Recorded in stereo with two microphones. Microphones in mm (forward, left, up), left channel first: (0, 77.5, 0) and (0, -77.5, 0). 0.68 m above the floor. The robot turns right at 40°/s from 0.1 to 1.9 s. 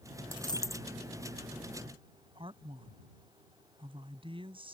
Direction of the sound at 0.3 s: 35° left (ahead or behind).